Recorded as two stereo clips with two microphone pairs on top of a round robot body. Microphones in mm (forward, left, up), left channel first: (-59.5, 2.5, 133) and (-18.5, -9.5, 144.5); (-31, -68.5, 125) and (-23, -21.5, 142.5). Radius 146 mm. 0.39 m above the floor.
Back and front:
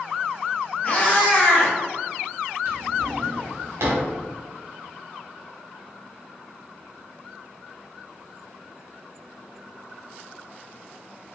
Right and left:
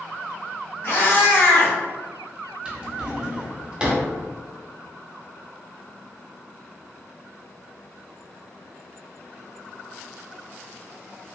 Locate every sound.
0.8 s a cat meowing: 140° right, 1.1 m
2.6 s a drawer: straight ahead, 0.7 m